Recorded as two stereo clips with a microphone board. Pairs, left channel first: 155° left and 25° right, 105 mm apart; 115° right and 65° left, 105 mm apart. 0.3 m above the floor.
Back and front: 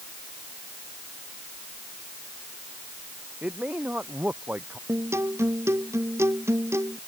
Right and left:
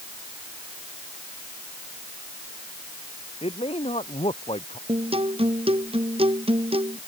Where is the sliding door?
No sliding door in this recording.